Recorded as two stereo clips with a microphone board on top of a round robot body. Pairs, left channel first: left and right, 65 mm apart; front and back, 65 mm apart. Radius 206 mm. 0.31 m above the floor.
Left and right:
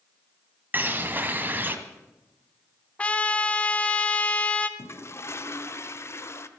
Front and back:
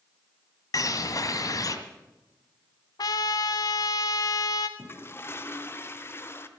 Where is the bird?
30° right, 1.4 m.